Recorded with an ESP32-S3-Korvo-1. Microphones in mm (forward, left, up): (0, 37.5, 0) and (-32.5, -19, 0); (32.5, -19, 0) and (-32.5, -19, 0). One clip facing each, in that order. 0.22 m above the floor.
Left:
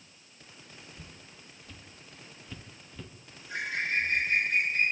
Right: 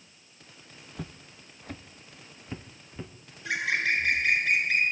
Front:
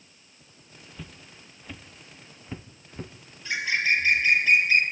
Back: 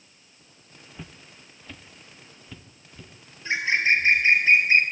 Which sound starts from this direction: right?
Footsteps, at 0.9 s.